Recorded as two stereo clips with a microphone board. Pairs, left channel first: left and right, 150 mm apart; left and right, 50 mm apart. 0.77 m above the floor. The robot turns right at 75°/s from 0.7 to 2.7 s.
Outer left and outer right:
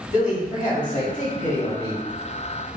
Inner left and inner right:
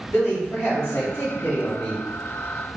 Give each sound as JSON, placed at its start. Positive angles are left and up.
{"t": 0.1, "sound": "a man speaking", "azimuth_deg": 65, "distance_m": 1.6}